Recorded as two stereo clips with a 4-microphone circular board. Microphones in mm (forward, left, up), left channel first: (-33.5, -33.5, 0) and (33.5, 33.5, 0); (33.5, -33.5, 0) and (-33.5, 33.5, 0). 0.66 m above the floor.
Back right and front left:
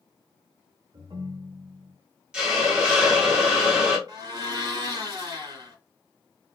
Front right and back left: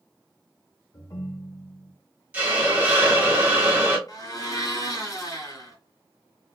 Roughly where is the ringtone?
Ahead.